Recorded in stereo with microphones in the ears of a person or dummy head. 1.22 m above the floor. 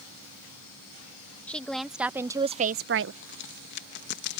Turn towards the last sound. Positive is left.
turn(degrees=65)  # may be behind; listen again after turning